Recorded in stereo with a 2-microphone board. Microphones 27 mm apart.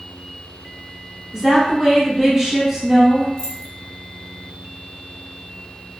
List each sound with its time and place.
1.3 s a woman speaking: 15° right (ahead or behind), 1.8 m
3.4 s keys jangling: 25° left (ahead or behind), 1.4 m